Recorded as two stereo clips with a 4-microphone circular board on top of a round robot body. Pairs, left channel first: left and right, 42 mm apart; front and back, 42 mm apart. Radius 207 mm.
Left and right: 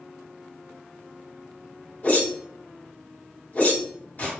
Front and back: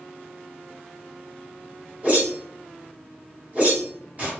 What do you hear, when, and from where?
2.0 s a whoosh: 125° left, 2.0 m